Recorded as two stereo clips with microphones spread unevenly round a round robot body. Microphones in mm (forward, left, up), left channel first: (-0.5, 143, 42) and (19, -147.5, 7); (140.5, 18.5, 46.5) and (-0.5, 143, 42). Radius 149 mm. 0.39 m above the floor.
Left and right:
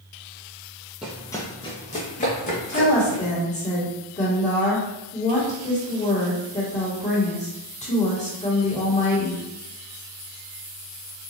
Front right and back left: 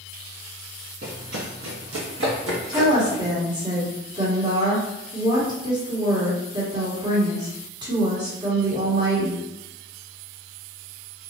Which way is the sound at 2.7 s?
140° left.